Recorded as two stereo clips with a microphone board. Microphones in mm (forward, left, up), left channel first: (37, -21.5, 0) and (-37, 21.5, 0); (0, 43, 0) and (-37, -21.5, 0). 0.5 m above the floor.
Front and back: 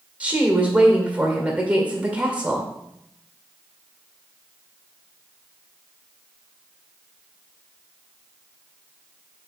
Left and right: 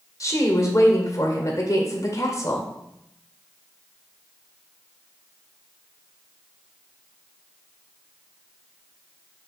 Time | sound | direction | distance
0.2 | a woman speaking | 80° left | 1.8 m